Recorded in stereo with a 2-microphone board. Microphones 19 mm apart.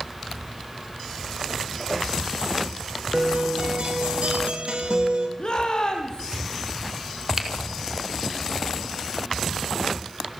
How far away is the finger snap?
About 3 m.